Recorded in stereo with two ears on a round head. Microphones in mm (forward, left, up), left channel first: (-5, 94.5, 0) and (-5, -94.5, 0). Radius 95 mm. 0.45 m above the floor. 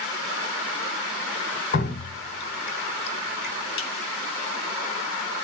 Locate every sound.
1.7 s dripping: 50° left (ahead or behind), 1.3 m